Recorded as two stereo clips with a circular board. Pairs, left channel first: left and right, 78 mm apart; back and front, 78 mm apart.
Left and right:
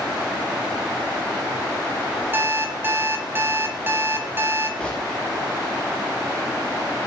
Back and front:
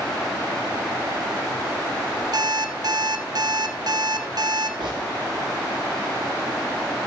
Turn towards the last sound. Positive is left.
turn(degrees=15)